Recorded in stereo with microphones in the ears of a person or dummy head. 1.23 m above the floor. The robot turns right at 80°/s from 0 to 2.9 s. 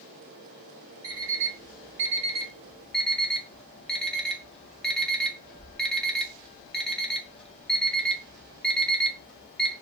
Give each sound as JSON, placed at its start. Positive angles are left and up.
{"t": 1.0, "sound": "an alarm clock", "side_deg": -25, "distance_m": 0.6}